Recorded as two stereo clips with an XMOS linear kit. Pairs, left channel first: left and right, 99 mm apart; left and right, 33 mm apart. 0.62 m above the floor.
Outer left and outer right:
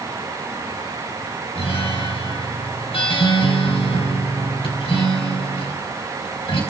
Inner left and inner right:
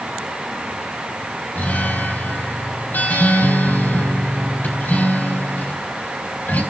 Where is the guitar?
65° left (ahead or behind), 4 m.